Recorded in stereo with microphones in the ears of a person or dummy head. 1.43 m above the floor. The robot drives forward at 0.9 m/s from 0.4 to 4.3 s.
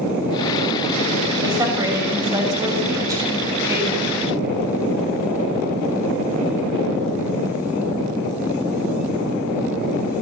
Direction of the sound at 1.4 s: 15° right (ahead or behind).